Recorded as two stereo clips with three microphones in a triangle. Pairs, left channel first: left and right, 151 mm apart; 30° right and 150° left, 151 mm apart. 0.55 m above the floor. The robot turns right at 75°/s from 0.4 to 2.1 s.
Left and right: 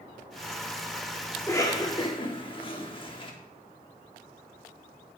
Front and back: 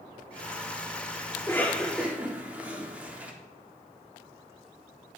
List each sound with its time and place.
1.4 s a cough: 20° left, 1.3 m; by 3.3 s 75° left, 1.3 m